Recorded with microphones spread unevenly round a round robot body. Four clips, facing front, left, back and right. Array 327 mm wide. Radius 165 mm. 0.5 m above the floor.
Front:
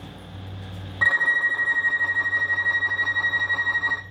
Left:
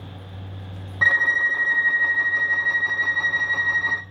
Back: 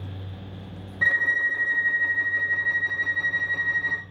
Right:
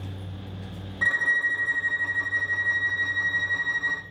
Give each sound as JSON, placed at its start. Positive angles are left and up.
{"t": 1.0, "sound": "a violin", "azimuth_deg": 80, "distance_m": 1.0}